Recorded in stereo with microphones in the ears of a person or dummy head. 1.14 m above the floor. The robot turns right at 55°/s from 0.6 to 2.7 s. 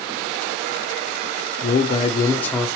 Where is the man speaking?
120° left, 0.6 m; by 2.7 s straight behind, 0.6 m.